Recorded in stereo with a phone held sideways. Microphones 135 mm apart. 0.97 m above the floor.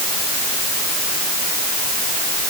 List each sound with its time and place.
Only background noise.